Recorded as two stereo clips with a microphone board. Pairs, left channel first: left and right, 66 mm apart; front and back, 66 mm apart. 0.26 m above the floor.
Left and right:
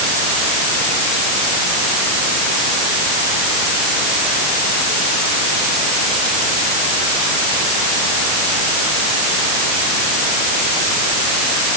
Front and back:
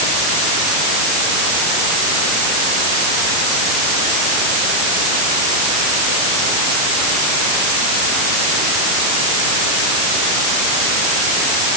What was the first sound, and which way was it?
Only background noise.